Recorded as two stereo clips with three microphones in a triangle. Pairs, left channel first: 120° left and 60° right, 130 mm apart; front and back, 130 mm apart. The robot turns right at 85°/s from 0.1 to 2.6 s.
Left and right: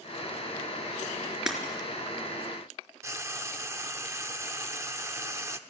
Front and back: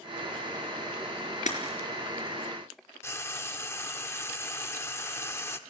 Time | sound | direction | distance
1.5 | breaking glass | 25° left | 3.5 m
3.0 | frying | 35° right | 0.8 m